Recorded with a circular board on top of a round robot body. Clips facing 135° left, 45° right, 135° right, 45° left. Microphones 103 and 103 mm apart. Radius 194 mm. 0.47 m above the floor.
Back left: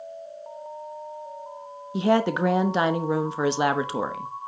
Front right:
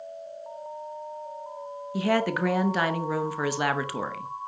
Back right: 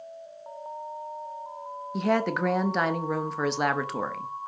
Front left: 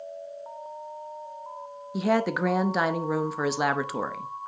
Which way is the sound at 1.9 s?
125° left.